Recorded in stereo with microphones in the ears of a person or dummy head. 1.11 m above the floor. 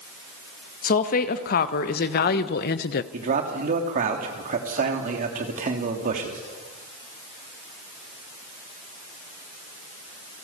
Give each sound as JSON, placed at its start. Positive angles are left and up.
{"t": 0.8, "sound": "a woman speaking", "side_deg": 45, "distance_m": 1.8}
{"t": 3.1, "sound": "a man speaking", "side_deg": -40, "distance_m": 3.0}